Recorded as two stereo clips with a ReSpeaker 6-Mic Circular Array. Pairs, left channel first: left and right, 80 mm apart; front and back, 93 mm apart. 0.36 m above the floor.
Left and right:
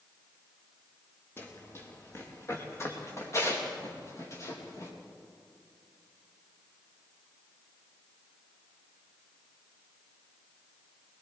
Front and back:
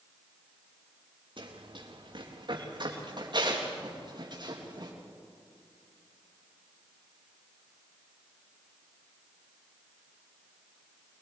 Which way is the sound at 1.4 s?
150° left.